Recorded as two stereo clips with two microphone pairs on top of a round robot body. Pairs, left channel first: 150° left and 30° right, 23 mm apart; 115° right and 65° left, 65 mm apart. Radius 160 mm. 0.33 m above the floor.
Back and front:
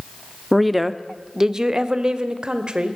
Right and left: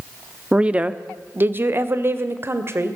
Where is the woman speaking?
95° left, 1.2 m; by 3.0 s 25° left, 2.5 m.